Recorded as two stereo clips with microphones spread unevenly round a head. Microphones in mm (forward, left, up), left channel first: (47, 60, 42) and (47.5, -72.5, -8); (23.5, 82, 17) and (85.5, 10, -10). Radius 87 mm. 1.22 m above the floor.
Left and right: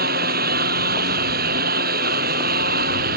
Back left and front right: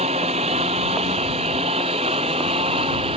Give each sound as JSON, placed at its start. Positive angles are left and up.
{"t": 0.0, "sound": "a lawn mower", "azimuth_deg": -105}